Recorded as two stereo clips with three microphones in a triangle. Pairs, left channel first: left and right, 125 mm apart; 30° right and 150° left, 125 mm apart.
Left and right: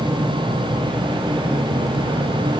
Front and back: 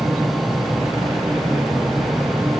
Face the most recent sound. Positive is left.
No sound to turn to.